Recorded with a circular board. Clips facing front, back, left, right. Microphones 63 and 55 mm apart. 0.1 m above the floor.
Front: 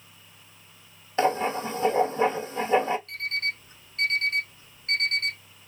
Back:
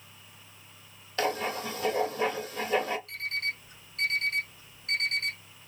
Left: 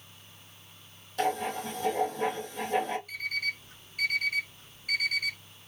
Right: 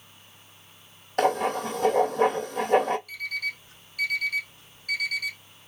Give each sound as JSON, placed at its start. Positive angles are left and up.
{"t": 1.2, "sound": "writing", "azimuth_deg": -65, "distance_m": 0.9}
{"t": 3.1, "sound": "an alarm clock", "azimuth_deg": 40, "distance_m": 2.0}